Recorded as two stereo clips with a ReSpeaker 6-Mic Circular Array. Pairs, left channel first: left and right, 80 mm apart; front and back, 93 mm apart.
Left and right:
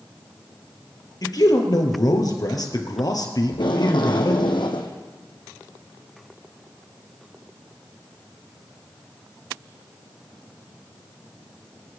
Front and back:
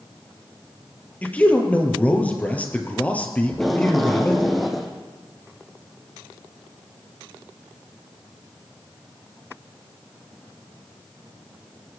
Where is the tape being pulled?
90° left, 2 m.